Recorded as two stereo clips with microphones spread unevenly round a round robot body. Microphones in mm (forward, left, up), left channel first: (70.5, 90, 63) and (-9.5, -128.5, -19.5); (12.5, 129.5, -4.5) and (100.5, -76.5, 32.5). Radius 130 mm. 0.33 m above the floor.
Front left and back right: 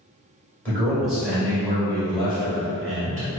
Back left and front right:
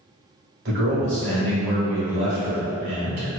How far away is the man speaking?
About 1.7 m.